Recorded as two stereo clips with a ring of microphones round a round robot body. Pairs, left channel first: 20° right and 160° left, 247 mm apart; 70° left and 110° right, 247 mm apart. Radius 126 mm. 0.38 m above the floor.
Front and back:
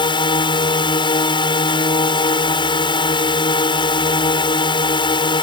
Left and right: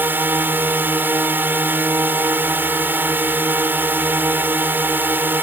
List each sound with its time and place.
0.0 s a drone: 45° right